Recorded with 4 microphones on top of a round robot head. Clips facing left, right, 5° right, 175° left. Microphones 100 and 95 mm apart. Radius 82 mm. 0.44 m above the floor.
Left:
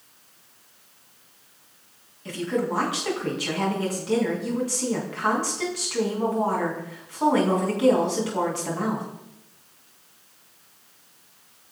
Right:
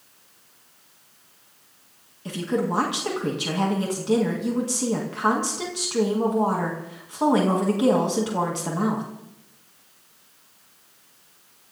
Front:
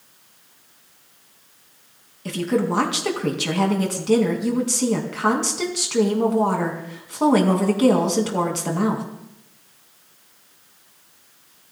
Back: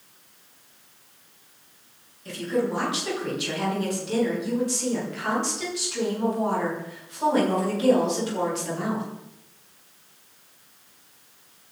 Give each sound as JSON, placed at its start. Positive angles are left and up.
{"t": 2.2, "sound": "a woman speaking", "azimuth_deg": -20, "distance_m": 5.0}